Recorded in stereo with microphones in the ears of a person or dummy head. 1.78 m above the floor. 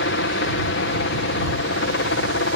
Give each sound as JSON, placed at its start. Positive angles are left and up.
{"t": 0.0, "sound": "a helicopter", "side_deg": 60}